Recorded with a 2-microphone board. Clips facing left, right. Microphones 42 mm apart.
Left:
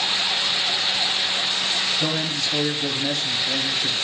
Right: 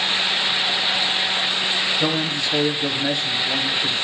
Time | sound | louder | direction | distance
2.0 | a man speaking | right 3 dB | 15° right (ahead or behind) | 1.5 m